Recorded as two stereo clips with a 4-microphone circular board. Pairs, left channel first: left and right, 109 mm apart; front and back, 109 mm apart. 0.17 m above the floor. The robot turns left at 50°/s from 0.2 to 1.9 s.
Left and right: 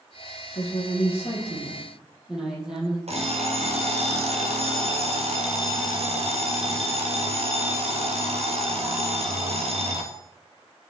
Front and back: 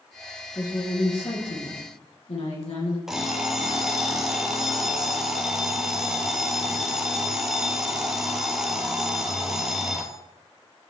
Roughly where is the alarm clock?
Right.